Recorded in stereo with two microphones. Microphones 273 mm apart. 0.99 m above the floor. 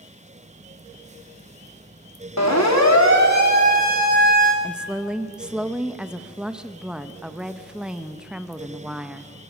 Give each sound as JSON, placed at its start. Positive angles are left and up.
{"t": 2.4, "sound": "a siren", "side_deg": 75, "distance_m": 2.5}
{"t": 4.6, "sound": "a woman speaking", "side_deg": -5, "distance_m": 0.8}